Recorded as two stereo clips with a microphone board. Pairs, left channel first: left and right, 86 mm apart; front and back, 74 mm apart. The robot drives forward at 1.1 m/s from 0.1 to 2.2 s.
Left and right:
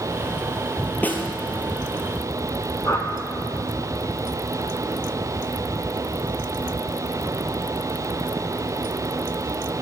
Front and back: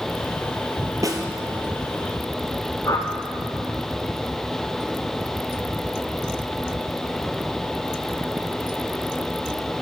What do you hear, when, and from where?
1.0 s a snare drum: 155° left, 1.2 m; by 1.3 s 160° left, 1.4 m
2.9 s a whoosh: 45° left, 1.2 m